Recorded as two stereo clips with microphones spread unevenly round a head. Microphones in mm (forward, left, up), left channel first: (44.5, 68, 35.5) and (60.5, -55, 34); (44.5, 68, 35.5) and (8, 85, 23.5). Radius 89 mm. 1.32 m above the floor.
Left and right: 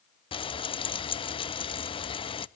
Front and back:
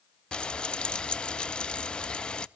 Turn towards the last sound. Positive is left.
turn(degrees=50)